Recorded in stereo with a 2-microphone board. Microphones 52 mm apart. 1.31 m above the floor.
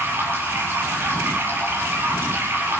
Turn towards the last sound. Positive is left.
turn(degrees=-40)  # may be behind; listen again after turning